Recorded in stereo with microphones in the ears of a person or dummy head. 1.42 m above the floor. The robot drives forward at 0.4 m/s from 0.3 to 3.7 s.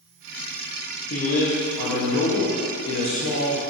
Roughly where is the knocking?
I don't hear knocking.